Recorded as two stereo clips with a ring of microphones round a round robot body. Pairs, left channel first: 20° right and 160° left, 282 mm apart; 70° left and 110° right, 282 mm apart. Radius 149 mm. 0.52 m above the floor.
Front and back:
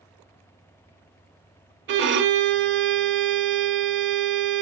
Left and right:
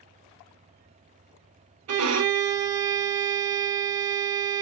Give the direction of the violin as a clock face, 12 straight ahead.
5 o'clock.